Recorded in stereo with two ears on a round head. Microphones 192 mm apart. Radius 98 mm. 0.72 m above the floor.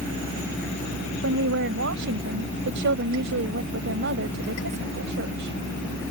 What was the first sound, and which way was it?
A woman speaking, 65° right (ahead or behind).